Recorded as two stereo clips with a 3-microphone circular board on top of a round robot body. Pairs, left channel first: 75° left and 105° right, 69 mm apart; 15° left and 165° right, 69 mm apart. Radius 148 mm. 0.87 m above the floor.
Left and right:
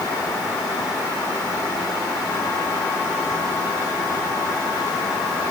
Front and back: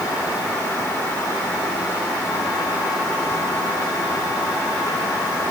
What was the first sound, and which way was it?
Only background noise.